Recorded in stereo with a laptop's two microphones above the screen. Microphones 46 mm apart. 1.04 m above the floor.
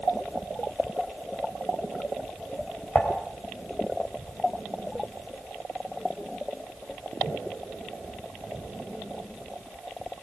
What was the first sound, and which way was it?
Dishes clattering, 20° left (ahead or behind).